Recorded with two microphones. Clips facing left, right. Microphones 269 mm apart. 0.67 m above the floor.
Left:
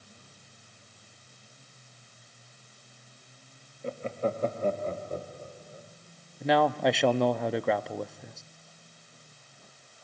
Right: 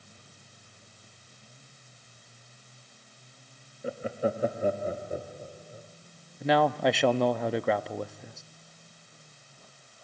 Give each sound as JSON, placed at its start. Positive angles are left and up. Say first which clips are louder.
{"t": 3.8, "sound": "laughter", "louder": "right 1 dB", "side_deg": -5, "distance_m": 0.8}
{"t": 6.4, "sound": "a man speaking", "louder": "even", "side_deg": 0, "distance_m": 0.6}